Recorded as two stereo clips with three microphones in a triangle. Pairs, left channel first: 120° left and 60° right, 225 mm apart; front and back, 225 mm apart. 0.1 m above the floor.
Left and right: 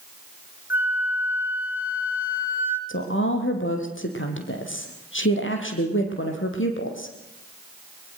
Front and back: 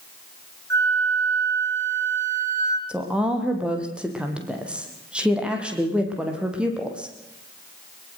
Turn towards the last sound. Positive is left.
turn(degrees=95)